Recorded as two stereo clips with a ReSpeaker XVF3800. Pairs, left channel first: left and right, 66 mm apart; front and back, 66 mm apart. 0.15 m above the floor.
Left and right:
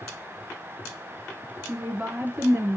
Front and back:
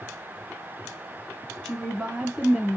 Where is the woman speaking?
75° right, 1.3 m; by 2.8 s 100° right, 1.6 m.